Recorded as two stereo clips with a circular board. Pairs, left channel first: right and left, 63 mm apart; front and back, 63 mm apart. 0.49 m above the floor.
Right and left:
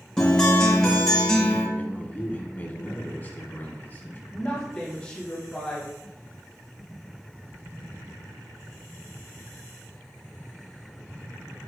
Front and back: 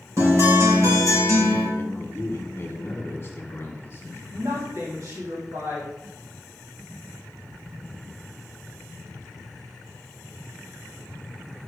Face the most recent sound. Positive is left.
turn(degrees=-160)